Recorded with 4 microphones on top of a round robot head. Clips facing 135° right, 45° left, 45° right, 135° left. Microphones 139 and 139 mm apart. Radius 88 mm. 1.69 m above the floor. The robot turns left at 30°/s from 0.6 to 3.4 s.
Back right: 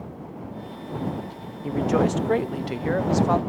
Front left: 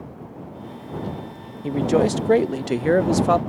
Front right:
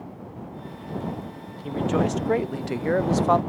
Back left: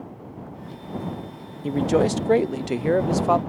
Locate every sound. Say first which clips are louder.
1.6 s a man speaking: front left 3 dB, back left 4 dB; 105° left; by 3.4 s 55° left